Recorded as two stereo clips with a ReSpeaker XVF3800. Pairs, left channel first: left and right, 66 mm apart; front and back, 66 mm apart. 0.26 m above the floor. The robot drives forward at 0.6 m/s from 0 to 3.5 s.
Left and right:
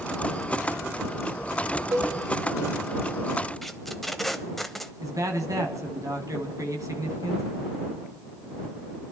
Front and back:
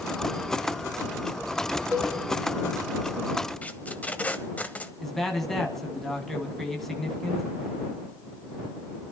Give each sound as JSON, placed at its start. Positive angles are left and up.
{"t": 1.9, "sound": "a cowbell", "azimuth_deg": -110, "distance_m": 6.5}
{"t": 3.6, "sound": "tape being pulled", "azimuth_deg": 5, "distance_m": 1.0}
{"t": 5.0, "sound": "a man speaking", "azimuth_deg": -85, "distance_m": 2.5}